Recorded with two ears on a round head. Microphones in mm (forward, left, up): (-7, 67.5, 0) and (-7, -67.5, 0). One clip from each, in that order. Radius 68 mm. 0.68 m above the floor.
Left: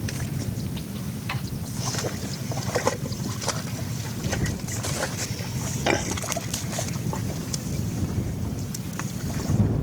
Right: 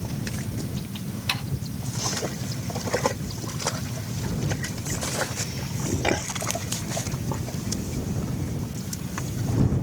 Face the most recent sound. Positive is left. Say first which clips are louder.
# right 6 dB
turn(degrees=-85)